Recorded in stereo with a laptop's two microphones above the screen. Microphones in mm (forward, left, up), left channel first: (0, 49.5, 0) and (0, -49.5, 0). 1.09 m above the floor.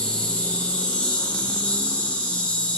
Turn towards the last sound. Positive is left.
turn(degrees=10)  # may be behind; listen again after turning